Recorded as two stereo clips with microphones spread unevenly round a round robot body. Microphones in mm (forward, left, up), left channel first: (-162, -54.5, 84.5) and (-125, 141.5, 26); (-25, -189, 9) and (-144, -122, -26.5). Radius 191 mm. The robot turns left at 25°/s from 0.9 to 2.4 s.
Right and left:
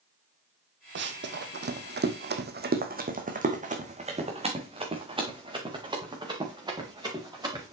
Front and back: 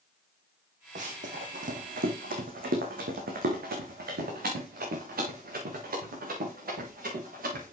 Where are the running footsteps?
105° left, 1.3 m; by 7.7 s 150° left, 5 m.